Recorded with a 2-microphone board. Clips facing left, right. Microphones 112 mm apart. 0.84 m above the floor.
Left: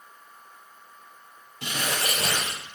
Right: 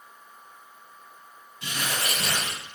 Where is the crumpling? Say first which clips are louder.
Left 2 dB; 65° left (ahead or behind), 3.5 m.